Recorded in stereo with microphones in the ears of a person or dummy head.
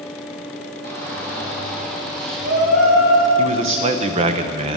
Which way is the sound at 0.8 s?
55° right (ahead or behind).